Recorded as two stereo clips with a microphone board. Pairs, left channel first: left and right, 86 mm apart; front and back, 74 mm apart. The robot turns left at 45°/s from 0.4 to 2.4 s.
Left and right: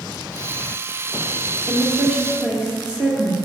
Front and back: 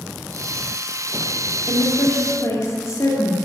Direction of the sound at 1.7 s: 10° left.